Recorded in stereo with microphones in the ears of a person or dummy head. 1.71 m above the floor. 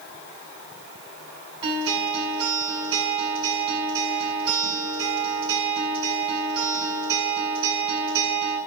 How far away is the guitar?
About 6.5 m.